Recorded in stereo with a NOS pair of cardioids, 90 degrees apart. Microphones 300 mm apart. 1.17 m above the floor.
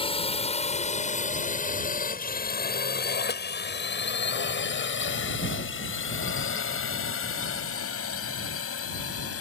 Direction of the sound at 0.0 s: 20° left.